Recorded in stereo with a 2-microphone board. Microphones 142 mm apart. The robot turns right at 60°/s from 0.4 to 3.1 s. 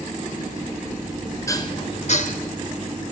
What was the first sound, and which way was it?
Dishes clattering, 20° left (ahead or behind).